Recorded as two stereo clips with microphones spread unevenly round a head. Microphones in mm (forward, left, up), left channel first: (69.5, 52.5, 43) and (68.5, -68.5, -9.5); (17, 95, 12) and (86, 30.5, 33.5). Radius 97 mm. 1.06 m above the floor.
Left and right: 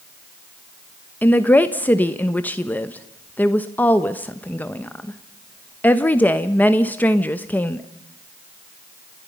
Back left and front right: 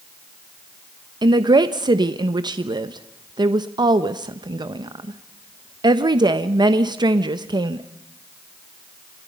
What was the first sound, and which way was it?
A woman speaking, 5° left.